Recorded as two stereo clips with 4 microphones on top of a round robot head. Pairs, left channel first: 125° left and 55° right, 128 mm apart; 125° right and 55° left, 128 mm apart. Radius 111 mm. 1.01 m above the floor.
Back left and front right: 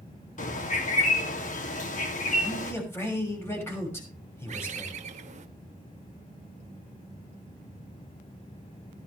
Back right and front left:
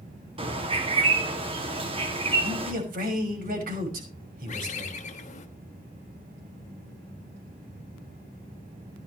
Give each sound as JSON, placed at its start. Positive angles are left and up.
{"t": 0.4, "sound": "a bird", "azimuth_deg": 105, "distance_m": 2.5}
{"t": 2.4, "sound": "a man speaking", "azimuth_deg": 50, "distance_m": 6.0}
{"t": 4.5, "sound": "a bird", "azimuth_deg": -90, "distance_m": 1.3}